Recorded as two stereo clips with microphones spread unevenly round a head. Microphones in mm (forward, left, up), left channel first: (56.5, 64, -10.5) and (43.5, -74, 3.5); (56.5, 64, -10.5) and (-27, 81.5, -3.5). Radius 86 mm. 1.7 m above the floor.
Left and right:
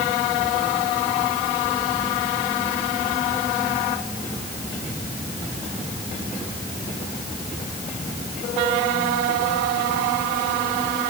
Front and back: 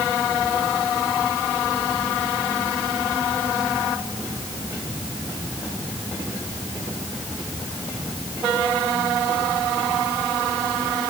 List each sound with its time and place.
Only background noise.